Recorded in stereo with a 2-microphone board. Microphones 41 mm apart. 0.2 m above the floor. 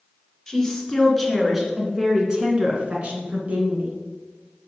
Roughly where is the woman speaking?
Centre.